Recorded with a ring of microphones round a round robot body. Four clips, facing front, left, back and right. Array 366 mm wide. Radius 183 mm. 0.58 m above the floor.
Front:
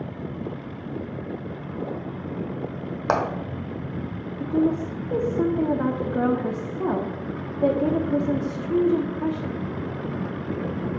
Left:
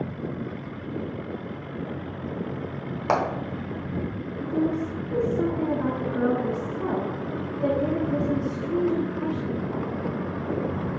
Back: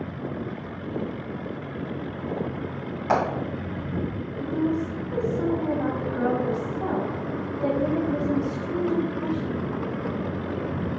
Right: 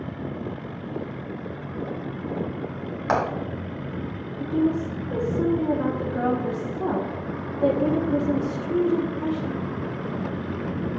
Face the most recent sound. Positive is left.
turn(degrees=-15)